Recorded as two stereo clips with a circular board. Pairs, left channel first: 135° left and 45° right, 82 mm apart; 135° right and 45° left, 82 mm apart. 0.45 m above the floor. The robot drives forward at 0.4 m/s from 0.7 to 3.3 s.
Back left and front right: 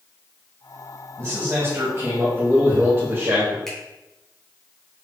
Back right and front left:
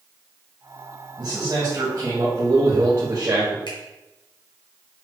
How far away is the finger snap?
About 2.5 m.